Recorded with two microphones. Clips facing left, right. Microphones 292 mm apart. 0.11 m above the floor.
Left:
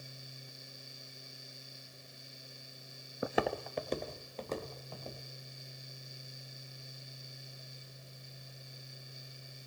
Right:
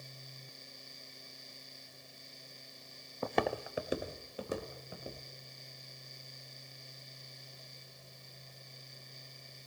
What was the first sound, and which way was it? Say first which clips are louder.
Footsteps: even; 15° left (ahead or behind).